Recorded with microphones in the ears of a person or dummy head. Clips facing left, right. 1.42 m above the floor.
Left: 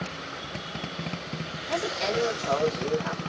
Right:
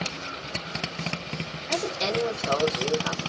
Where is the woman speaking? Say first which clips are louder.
Even; 20° right (ahead or behind), 3 m.